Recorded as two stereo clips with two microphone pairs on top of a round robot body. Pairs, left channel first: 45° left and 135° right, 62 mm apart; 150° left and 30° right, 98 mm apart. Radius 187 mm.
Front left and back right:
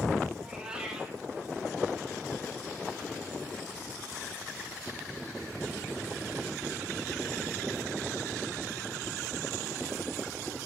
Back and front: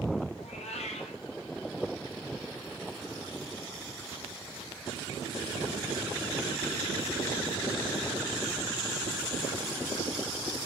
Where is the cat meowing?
150° left, 1.8 m.